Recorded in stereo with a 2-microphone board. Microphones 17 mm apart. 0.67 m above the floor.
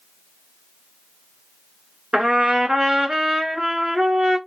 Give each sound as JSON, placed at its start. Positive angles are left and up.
{"t": 2.1, "sound": "a trumpet", "side_deg": -60, "distance_m": 2.0}